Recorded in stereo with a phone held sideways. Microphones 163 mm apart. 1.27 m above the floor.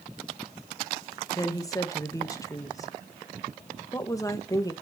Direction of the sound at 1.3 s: 20° left (ahead or behind).